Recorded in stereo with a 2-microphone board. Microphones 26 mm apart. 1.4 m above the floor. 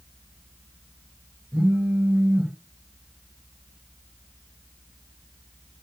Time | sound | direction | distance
1.5 | a phone buzzing | 75° right (ahead or behind) | 2 m